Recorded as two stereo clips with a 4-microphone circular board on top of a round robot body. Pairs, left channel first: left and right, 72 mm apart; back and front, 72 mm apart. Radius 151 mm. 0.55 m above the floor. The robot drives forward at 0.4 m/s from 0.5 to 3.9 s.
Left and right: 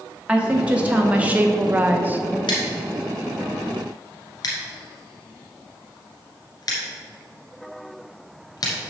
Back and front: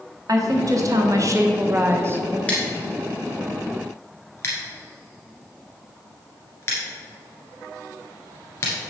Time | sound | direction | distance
0.3 | a woman speaking | 20° right | 1.5 m
2.5 | scissors | 105° left | 1.5 m